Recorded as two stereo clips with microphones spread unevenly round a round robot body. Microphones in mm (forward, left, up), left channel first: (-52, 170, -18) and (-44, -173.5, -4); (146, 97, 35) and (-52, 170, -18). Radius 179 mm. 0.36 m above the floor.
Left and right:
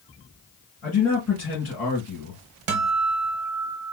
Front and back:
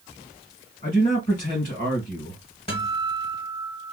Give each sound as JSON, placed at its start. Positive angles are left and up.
{"t": 0.8, "sound": "a man speaking", "azimuth_deg": 35, "distance_m": 2.0}
{"t": 2.7, "sound": "a guitar", "azimuth_deg": -100, "distance_m": 1.1}